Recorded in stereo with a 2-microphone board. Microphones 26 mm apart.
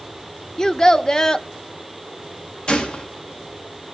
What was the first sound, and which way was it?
A child speaking, 25° left (ahead or behind).